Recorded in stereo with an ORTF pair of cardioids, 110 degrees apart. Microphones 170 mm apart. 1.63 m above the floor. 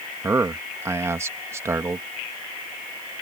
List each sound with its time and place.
0.2 s a man speaking: 15° right